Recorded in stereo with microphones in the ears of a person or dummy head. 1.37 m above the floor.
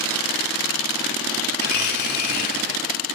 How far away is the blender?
About 2 m.